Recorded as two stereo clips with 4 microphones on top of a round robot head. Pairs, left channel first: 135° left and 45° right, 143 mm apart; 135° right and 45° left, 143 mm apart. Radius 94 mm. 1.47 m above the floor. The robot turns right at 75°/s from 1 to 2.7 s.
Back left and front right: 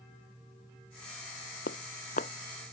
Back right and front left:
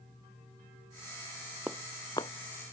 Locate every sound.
1.7 s footsteps: 125° left; by 2.3 s 175° left